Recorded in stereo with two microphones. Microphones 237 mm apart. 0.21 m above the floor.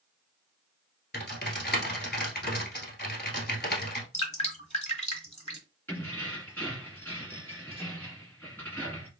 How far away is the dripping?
About 1.3 m.